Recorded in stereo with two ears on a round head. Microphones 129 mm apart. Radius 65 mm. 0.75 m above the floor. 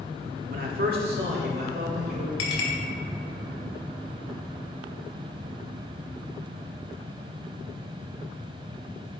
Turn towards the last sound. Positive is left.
turn(degrees=80)